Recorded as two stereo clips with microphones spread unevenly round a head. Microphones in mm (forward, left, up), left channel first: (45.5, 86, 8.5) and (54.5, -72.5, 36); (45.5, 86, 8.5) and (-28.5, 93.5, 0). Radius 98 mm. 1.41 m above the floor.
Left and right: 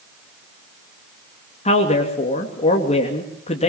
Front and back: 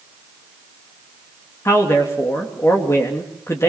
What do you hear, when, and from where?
1.6 s a man speaking: 45° left, 2.5 m